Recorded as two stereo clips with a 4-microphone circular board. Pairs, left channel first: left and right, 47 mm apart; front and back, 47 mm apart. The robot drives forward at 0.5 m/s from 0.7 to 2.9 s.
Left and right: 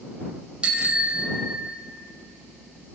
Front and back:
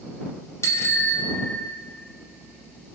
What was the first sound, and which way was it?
A bicycle bell, 20° right.